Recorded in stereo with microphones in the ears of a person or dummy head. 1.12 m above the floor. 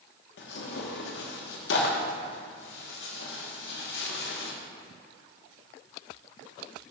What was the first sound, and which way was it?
Tearing paper, 75° left (ahead or behind).